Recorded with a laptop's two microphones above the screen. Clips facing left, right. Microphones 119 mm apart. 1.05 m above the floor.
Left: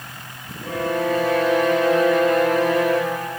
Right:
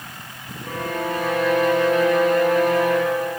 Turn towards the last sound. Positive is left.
turn(degrees=80)